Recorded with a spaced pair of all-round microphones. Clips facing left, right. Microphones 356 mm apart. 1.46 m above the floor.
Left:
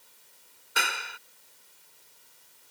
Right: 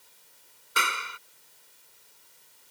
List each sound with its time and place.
0.8 s a clap: 10° right (ahead or behind)